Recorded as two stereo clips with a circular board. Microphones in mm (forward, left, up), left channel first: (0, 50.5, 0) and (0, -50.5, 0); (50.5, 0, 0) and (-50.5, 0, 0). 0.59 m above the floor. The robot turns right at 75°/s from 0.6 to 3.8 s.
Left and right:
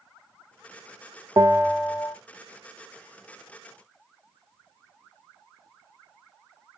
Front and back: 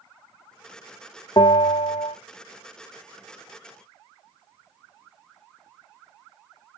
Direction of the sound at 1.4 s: 45° right.